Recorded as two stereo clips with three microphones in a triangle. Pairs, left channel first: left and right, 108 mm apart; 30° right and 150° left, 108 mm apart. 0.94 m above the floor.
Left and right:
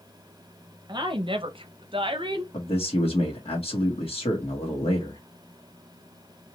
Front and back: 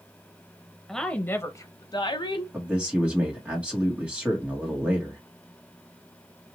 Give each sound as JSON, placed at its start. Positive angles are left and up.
{"t": 0.9, "sound": "a woman speaking", "azimuth_deg": -120, "distance_m": 0.6}
{"t": 2.5, "sound": "a man speaking", "azimuth_deg": 75, "distance_m": 1.1}